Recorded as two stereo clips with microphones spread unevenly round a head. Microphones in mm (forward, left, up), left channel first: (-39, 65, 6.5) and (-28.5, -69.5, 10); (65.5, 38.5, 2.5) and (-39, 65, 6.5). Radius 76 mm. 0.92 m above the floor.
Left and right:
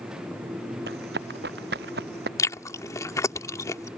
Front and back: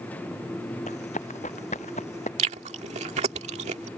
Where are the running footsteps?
65° right.